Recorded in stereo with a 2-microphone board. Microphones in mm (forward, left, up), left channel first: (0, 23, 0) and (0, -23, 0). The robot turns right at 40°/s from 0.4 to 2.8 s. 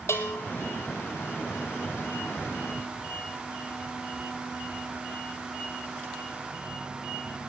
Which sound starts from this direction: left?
A bell, at 0.1 s.